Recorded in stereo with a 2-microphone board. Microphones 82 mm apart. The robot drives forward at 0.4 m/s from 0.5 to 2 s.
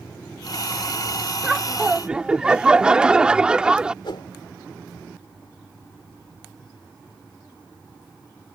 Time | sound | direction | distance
1.4 | laughter | 10° right (ahead or behind) | ?
4.0 | a whoosh | 70° left (ahead or behind) | ?